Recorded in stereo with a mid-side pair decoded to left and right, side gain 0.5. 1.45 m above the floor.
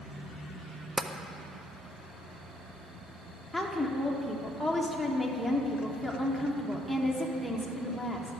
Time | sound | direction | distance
1.0 | tapping | 20° right | 0.5 m
3.5 | a woman speaking | straight ahead | 1.4 m